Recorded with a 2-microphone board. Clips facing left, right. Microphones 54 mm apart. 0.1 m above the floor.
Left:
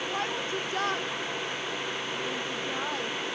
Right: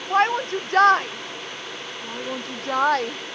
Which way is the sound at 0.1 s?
65° right (ahead or behind).